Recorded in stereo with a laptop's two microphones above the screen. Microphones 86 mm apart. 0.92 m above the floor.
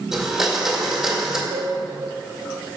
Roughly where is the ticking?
I don't hear ticking.